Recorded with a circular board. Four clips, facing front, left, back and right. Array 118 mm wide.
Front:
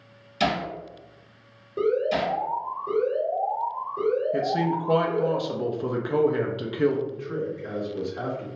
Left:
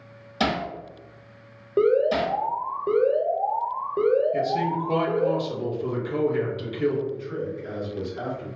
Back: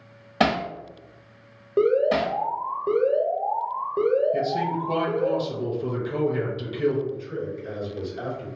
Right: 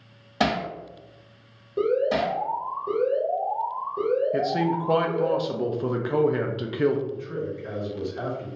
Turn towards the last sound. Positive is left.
turn(degrees=-25)